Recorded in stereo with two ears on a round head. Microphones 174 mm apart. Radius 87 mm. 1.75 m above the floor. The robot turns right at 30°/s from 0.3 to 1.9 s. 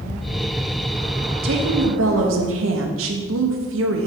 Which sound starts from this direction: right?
A woman speaking, at 1.4 s.